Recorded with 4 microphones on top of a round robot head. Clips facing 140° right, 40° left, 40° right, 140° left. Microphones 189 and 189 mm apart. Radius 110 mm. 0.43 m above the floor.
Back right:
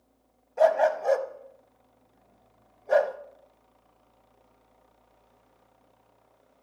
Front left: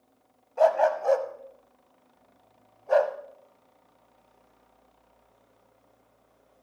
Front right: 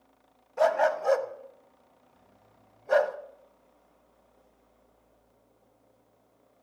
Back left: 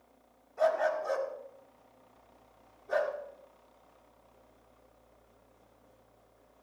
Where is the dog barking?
60° right, 0.9 m.